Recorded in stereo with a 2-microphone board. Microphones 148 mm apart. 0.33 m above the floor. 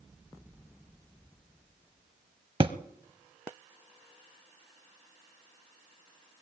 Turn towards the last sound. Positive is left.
turn(degrees=-40)  # may be behind; listen again after turning